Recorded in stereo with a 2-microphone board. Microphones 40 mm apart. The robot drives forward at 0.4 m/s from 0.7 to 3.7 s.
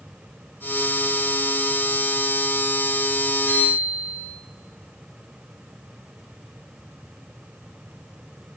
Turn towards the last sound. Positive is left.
turn(degrees=85)